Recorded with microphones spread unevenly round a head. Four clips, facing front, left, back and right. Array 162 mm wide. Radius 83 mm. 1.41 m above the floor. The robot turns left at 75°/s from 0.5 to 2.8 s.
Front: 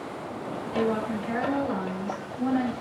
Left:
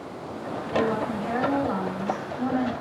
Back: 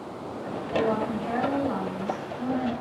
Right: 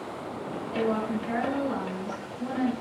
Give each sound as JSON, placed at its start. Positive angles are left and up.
{"t": 0.7, "sound": "a woman speaking", "azimuth_deg": 180, "distance_m": 2.5}